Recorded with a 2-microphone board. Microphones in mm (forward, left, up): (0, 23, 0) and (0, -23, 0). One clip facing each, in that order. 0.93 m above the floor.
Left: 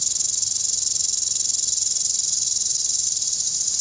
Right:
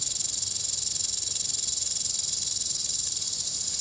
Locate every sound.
0.0 s an insect: 10° right (ahead or behind)